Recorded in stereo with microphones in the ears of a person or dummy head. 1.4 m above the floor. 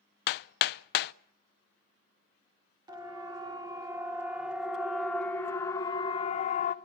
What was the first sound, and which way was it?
Hammering, 60° left (ahead or behind).